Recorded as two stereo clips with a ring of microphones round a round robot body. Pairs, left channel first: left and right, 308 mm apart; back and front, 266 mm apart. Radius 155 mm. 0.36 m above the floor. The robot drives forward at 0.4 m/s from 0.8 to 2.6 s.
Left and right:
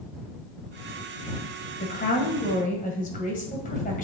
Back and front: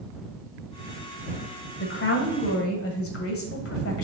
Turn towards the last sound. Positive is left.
turn(degrees=150)